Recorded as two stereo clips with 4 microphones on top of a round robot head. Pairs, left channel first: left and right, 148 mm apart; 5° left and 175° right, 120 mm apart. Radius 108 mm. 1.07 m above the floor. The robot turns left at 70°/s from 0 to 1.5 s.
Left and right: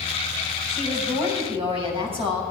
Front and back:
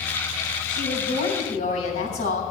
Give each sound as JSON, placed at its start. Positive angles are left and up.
{"t": 0.7, "sound": "a woman speaking", "azimuth_deg": 15, "distance_m": 7.5}